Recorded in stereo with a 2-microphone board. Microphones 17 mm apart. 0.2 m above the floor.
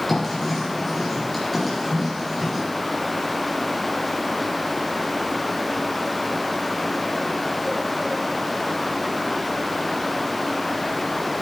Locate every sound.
0.1 s writing: 5° left (ahead or behind), 3.5 m